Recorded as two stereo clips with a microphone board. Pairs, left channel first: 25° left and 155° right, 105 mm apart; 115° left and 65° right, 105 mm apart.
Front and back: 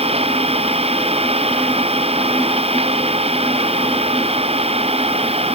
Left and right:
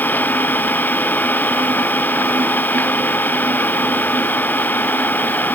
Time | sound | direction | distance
0.0 | an engine running | 175° right | ?